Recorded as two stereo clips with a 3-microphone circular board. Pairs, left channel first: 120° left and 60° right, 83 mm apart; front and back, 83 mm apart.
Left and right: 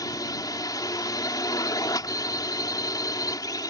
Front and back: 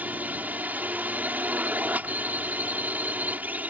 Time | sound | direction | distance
0.0 | a drone | 115° left | ?